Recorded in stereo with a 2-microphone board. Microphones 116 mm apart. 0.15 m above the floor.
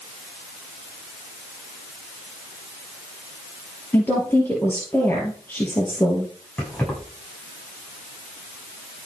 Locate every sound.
3.9 s a woman speaking: 15° left (ahead or behind), 3 m
6.6 s keys jangling: 10° left (ahead or behind), 8 m